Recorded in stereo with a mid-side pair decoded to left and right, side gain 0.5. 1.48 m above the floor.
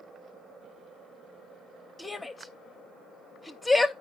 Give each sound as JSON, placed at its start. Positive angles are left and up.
{"t": 2.0, "sound": "a shout", "azimuth_deg": 10, "distance_m": 0.6}